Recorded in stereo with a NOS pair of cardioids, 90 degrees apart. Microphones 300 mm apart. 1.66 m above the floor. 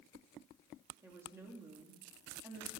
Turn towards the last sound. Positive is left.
turn(degrees=-10)